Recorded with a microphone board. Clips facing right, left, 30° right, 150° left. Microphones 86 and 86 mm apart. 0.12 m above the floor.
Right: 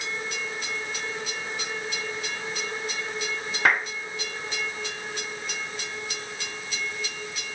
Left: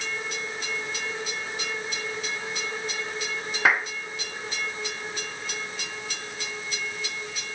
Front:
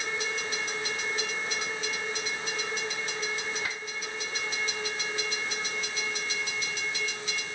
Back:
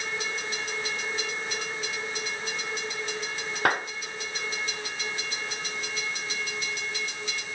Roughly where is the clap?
Behind.